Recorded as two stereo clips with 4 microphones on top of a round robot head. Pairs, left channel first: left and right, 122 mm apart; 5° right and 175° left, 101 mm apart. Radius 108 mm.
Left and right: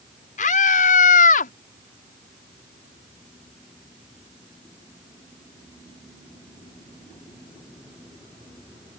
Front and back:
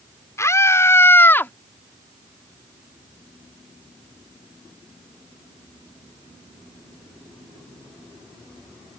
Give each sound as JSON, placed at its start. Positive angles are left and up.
{"t": 0.4, "sound": "a scream", "azimuth_deg": 60}